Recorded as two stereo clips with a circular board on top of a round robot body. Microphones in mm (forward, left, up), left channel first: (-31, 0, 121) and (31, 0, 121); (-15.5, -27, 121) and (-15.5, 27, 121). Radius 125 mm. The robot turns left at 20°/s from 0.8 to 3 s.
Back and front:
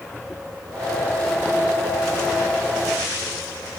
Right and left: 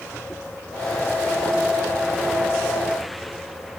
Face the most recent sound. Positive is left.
No sound to turn to.